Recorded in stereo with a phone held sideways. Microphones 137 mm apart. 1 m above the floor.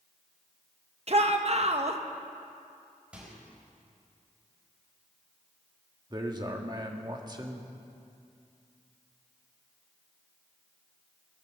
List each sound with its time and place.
1.1 s a shout: 50° right (ahead or behind), 1.0 m
3.1 s a microwave: 10° right (ahead or behind), 4 m
6.1 s a man speaking: 30° right (ahead or behind), 1.4 m